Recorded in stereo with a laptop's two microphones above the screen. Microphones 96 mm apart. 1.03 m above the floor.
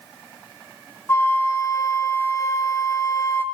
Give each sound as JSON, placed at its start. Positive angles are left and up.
{"t": 1.1, "sound": "a flute", "side_deg": 30, "distance_m": 0.8}